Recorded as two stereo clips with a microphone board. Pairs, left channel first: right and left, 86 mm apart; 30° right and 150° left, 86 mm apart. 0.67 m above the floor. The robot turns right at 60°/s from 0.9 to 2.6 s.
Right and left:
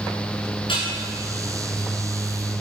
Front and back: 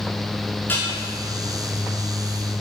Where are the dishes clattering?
95° right, 6 m; by 1.0 s 90° right, 6 m.